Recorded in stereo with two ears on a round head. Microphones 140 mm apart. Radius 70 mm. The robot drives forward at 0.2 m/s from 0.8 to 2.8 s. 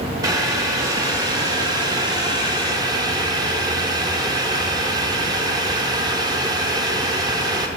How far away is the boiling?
About 0.6 m.